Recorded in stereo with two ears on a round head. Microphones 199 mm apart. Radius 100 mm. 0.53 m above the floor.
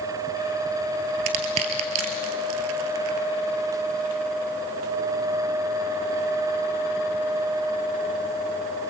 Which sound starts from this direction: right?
Crushing, at 1.3 s.